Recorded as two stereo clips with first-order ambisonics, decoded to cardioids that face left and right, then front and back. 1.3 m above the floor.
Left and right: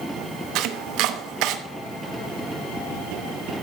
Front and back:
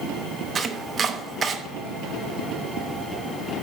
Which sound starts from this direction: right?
Chopping, at 0.6 s.